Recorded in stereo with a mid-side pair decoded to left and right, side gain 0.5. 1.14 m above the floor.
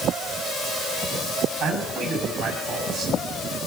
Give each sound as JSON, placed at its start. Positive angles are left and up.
{"t": 1.6, "sound": "a man speaking", "azimuth_deg": -60, "distance_m": 7.0}